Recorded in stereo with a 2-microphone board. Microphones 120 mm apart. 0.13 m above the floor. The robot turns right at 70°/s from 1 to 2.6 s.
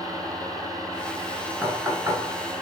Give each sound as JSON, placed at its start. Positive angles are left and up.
{"t": 1.6, "sound": "knocking", "side_deg": -15, "distance_m": 1.1}